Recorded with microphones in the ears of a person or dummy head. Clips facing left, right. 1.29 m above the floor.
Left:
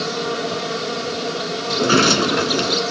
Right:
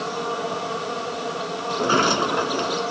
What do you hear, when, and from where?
0.0 s an insect: 35° left (ahead or behind)
1.7 s a sliding door: 30° left (ahead or behind)